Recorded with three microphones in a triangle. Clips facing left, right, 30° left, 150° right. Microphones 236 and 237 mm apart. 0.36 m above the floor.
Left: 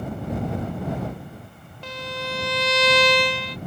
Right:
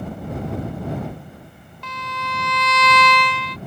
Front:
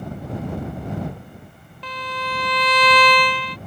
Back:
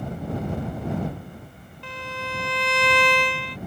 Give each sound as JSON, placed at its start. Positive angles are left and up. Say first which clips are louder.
{"t": 1.8, "sound": "a violin", "louder": "left 3 dB, front 3 dB", "azimuth_deg": 35}